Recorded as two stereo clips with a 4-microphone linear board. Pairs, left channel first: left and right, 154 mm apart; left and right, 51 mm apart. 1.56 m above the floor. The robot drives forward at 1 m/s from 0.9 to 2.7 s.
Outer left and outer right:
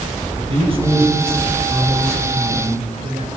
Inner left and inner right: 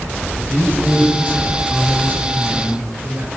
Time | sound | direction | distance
0.4 | a man speaking | 40° right (ahead or behind) | 6.5 m